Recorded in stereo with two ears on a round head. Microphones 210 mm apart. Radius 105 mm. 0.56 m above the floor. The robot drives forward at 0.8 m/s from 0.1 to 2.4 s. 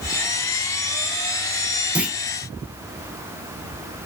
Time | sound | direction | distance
1.9 | a clunk | 5° right (ahead or behind) | 0.7 m